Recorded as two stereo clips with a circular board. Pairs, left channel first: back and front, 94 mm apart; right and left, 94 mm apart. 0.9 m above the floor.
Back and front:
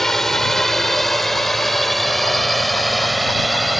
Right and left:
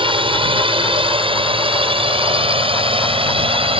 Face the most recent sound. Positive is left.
turn(degrees=90)